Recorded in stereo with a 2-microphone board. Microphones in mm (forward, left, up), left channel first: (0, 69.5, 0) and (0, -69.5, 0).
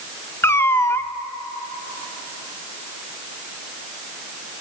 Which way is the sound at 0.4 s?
15° left (ahead or behind).